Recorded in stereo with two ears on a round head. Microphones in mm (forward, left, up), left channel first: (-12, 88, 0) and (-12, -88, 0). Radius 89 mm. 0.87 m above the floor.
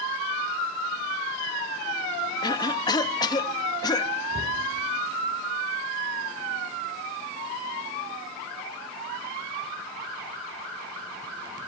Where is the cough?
20° left (ahead or behind), 1.0 m.